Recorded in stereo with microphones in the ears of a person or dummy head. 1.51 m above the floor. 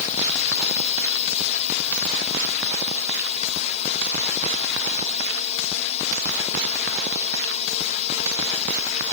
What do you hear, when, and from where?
0.0 s a drone: 35° left (ahead or behind)